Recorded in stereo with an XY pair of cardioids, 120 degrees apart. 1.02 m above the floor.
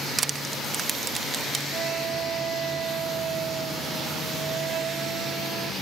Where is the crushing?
30° right.